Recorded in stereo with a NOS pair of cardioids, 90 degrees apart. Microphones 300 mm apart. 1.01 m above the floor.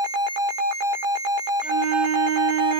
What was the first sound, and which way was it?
A flute, 65° right.